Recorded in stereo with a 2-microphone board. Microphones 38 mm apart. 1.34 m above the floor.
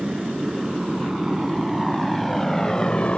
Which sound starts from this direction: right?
A motorcycle, at 0.0 s.